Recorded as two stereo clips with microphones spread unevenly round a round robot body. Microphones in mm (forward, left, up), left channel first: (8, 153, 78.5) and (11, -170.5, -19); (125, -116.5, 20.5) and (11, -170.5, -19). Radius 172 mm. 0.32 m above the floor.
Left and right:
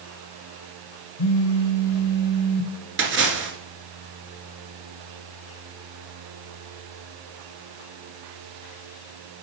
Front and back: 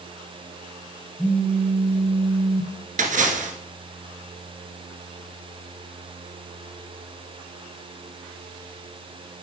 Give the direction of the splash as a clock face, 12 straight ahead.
5 o'clock.